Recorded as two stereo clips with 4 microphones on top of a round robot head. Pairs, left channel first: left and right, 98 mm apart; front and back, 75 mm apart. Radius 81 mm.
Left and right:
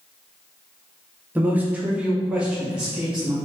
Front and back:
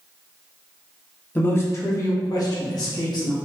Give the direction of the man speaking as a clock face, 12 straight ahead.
1 o'clock.